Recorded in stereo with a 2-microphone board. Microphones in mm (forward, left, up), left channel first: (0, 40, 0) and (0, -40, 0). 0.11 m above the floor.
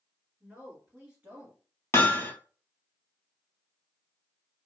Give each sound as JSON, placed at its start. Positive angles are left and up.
{"t": 0.4, "sound": "a woman speaking", "side_deg": -15, "distance_m": 2.5}
{"t": 1.9, "sound": "hammering", "side_deg": 35, "distance_m": 0.8}